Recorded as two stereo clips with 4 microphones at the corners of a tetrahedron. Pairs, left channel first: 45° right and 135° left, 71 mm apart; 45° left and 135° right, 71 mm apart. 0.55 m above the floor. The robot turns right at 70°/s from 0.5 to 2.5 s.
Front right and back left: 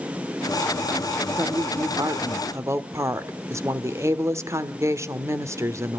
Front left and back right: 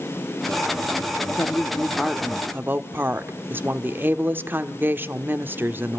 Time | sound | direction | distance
1.4 | a woman speaking | 90° left | 1.3 m